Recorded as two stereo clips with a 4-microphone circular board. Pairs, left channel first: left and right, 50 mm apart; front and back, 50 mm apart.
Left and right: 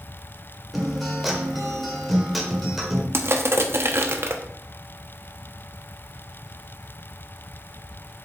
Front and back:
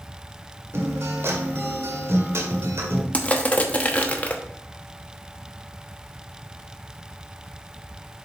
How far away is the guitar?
About 1.4 m.